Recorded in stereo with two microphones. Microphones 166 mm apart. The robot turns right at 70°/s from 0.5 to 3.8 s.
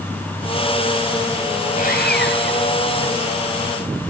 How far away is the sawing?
About 2.5 m.